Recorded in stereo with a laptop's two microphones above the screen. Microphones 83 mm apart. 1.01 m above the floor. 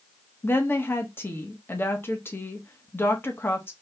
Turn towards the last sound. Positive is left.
turn(degrees=25)  # may be behind; listen again after turning